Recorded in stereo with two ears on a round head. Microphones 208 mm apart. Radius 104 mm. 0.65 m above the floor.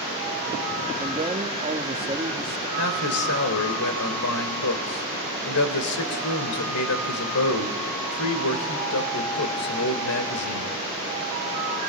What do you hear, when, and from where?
1.0 s a man speaking: 25° right (ahead or behind), 1.3 m
2.8 s a man speaking: 70° left (ahead or behind), 2.5 m